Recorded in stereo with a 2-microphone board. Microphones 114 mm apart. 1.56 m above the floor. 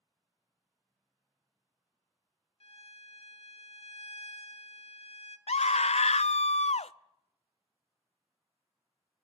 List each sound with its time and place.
2.6 s a violin: 60° left (ahead or behind), 1.2 m
5.5 s a scream: 70° left (ahead or behind), 0.6 m